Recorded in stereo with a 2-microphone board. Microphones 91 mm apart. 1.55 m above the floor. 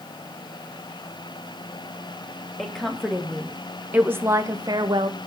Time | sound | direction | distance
2.6 | a woman speaking | 5° left (ahead or behind) | 2.5 m